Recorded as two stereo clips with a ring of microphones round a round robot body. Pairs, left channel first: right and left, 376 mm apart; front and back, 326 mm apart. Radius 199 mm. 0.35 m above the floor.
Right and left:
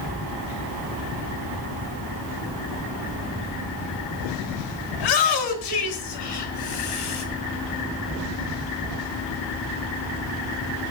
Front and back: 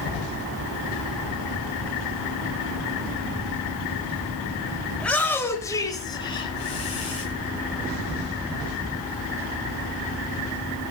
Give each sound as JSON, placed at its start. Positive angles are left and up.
{"t": 5.0, "sound": "a shout", "azimuth_deg": -90, "distance_m": 5.0}